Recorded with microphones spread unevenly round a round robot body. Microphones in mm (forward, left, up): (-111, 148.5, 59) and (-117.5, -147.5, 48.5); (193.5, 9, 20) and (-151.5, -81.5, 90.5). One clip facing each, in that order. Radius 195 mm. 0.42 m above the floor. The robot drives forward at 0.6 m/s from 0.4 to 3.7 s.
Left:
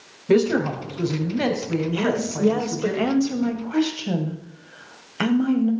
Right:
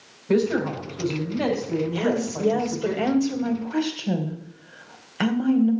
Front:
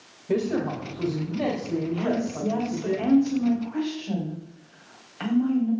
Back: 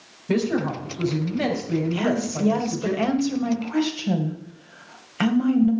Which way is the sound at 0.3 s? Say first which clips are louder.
Left 3 dB, back 2 dB; 130° left.